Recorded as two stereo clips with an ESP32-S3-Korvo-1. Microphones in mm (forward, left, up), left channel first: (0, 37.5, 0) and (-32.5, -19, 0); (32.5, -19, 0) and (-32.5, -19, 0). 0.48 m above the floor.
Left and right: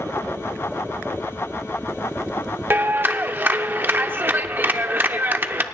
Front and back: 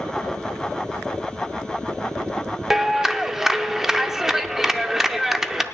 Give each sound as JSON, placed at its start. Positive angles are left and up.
{"t": 2.7, "sound": "a clap", "azimuth_deg": -105, "distance_m": 0.6}